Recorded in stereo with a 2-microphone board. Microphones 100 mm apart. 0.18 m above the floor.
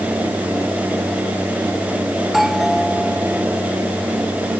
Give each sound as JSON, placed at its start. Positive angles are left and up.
{"t": 2.2, "sound": "a doorbell", "side_deg": -5}